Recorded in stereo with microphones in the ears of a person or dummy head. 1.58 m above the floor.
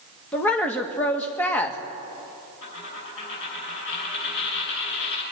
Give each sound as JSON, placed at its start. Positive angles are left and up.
{"t": 0.3, "sound": "a woman speaking", "side_deg": 10, "distance_m": 1.6}
{"t": 2.6, "sound": "a dropped coin", "side_deg": 65, "distance_m": 6.0}